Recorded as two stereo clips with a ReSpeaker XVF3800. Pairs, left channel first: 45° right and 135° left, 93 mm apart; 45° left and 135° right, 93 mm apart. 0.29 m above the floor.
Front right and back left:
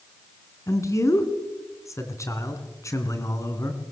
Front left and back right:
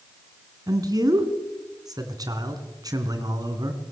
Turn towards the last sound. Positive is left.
turn(degrees=-95)